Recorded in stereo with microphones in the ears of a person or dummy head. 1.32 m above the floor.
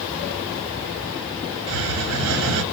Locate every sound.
1.7 s a hiss: 55° right (ahead or behind), 0.7 m